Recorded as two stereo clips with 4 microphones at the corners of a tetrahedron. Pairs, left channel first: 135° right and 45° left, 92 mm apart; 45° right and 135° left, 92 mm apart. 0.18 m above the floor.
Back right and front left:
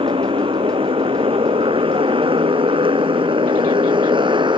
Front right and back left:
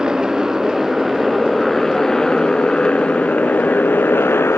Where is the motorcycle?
50° left; by 4.6 s 20° left.